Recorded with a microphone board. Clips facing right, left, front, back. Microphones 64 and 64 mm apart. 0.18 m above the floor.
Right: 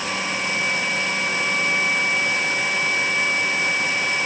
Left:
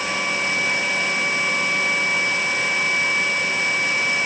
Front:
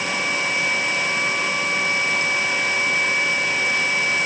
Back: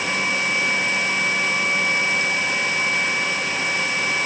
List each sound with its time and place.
Only background noise.